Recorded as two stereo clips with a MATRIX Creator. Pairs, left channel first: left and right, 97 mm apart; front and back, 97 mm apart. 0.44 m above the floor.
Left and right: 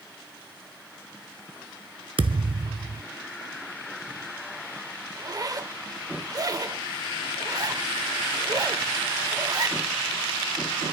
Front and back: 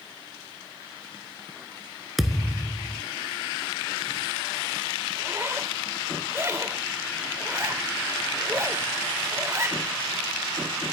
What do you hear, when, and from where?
2.2 s a thud: 95° right, 0.7 m
5.2 s a zipper: 125° right, 0.8 m